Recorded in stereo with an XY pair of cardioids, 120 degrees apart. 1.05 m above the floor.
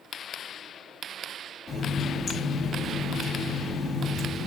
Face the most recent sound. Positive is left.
turn(degrees=45)